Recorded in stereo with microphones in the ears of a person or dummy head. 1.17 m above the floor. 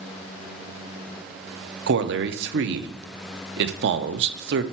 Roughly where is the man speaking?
Right.